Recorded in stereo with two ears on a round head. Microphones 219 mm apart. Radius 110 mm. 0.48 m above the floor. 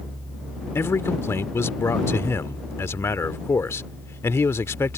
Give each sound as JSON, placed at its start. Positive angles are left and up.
{"t": 0.8, "sound": "a man speaking", "side_deg": 10}